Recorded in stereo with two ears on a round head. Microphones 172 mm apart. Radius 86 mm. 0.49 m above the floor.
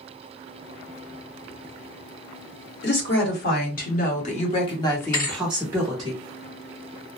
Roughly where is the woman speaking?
Left.